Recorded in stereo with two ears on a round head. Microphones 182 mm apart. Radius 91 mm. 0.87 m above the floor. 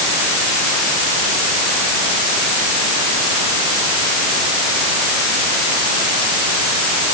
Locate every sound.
Only background noise.